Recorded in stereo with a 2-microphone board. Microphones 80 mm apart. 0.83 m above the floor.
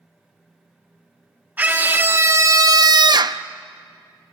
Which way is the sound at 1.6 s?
20° right (ahead or behind).